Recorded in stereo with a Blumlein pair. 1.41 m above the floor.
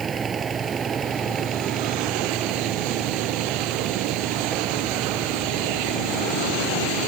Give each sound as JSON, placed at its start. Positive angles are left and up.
{"t": 0.0, "sound": "a fan", "azimuth_deg": -20}